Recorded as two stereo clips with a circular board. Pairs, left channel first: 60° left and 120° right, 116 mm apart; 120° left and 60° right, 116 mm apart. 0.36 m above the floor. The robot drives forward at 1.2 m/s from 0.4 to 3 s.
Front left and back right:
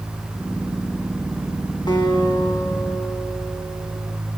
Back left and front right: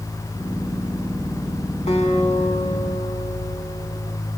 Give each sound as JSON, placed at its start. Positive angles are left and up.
{"t": 1.9, "sound": "a guitar", "azimuth_deg": 105, "distance_m": 3.5}